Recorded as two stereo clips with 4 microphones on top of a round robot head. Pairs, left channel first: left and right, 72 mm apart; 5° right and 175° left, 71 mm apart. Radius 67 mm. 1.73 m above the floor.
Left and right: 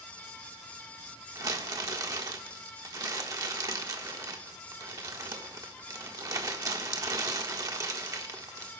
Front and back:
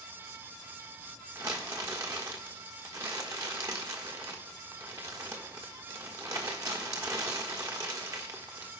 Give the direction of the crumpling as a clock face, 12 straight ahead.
4 o'clock.